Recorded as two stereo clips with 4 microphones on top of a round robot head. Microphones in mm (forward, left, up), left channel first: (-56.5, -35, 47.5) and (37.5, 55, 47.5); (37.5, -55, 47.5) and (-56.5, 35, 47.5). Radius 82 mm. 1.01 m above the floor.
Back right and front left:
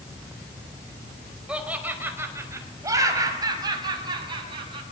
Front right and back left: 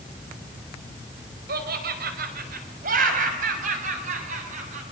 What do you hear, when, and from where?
1.5 s laughter: 125° left, 4.5 m; by 4.8 s 95° left, 7 m